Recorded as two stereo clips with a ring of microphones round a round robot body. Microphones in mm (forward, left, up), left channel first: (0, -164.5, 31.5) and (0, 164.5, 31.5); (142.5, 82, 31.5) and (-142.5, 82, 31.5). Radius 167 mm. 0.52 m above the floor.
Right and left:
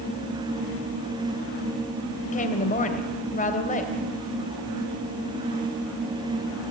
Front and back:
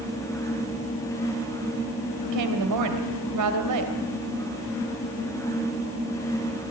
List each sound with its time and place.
2.2 s a woman speaking: 155° right, 3 m